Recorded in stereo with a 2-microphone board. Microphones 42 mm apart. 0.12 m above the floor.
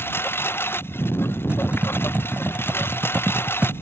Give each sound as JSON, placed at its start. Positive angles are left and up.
{"t": 0.0, "sound": "a lawn mower", "side_deg": 60}
{"t": 1.5, "sound": "typing on a keyboard", "side_deg": -30}